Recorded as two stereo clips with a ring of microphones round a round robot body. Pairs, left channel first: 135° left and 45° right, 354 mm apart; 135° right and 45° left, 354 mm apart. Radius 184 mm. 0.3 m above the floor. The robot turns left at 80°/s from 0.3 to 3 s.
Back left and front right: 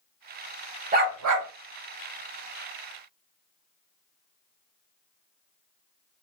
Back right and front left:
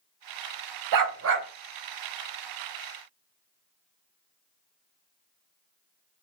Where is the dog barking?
25° left, 0.8 m; by 1.5 s 20° right, 0.8 m.